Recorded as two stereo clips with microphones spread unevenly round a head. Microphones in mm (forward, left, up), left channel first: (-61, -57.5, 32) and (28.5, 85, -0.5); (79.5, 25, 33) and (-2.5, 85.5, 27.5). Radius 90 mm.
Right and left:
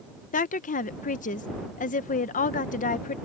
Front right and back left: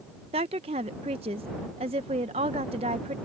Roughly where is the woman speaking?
Behind.